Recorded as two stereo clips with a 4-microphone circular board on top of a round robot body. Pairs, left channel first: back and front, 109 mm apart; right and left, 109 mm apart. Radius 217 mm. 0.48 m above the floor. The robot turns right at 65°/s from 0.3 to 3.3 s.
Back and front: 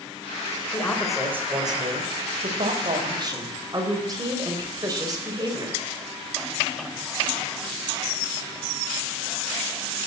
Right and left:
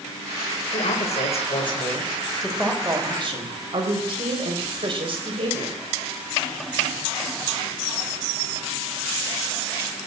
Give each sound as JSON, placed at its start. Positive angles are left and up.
{"t": 0.7, "sound": "a man speaking", "azimuth_deg": -115, "distance_m": 4.0}